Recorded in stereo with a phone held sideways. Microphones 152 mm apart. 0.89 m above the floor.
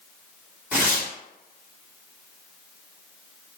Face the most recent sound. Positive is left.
turn(degrees=-10)  # may be behind; listen again after turning